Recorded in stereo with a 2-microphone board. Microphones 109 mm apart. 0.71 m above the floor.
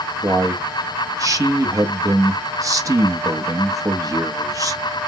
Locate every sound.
0.2 s a man speaking: 30° right (ahead or behind), 0.7 m